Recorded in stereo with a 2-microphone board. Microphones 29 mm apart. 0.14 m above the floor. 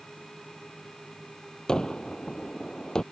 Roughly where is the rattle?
I don't hear a rattle.